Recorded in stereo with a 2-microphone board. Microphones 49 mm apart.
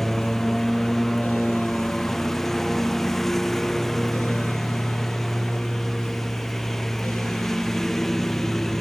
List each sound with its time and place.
0.0 s a lawn mower: 10° left (ahead or behind)